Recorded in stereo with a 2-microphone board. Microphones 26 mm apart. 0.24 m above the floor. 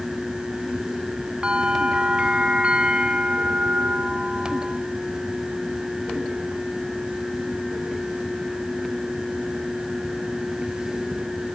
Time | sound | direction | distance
1.4 | a bell | 40° right (ahead or behind) | 1.7 m